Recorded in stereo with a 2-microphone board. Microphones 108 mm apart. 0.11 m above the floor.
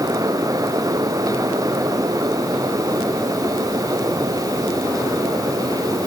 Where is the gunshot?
No gunshot in this recording.